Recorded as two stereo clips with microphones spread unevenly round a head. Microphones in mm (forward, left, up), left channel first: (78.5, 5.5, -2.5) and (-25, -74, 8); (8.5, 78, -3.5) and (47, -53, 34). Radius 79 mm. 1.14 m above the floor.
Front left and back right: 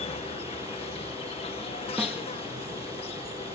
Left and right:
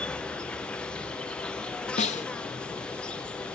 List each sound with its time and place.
0.0 s an insect: 40° left
2.0 s a snare drum: 135° left